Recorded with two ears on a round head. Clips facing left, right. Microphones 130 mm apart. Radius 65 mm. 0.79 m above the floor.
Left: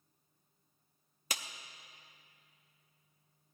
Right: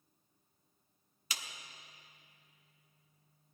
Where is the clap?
40° left (ahead or behind), 0.7 m.